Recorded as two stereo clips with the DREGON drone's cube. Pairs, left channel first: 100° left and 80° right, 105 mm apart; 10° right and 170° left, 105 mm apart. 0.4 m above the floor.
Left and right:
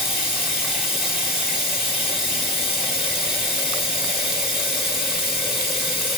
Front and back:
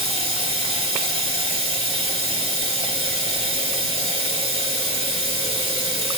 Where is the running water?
165° right, 1.9 m.